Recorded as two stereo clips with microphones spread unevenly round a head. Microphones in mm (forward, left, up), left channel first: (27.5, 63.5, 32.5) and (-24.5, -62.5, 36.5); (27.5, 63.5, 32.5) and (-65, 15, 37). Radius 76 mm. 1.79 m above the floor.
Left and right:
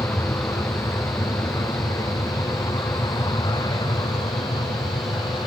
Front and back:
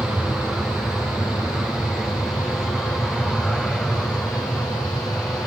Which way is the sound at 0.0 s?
125° left.